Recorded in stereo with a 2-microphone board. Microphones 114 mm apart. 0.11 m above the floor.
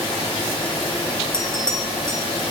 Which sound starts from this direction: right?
A bell, at 1.3 s.